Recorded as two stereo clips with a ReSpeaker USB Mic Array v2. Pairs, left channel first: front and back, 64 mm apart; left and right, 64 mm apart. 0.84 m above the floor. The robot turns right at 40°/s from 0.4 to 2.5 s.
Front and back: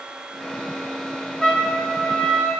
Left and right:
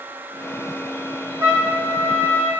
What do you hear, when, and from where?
1.4 s a trumpet: 85° right, 0.8 m; by 2.5 s 45° right, 0.8 m